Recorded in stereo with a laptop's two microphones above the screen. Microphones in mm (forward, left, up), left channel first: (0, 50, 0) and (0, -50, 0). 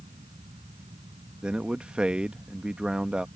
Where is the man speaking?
10° right (ahead or behind).